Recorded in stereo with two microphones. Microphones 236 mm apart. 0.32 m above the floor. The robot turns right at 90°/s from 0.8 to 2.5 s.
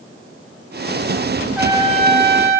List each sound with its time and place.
1.6 s a trumpet: 175° right, 2.5 m; by 2.6 s 90° right, 2.5 m